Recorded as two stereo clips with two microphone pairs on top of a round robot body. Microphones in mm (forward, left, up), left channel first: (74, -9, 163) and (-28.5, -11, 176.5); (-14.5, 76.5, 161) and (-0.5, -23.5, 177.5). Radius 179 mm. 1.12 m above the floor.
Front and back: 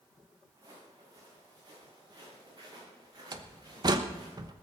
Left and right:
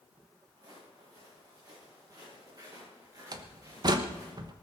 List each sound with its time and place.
0.6 s footsteps: 125° right, 8 m; by 4.3 s 135° right, 11.5 m
3.3 s a door slam: 130° right, 1.0 m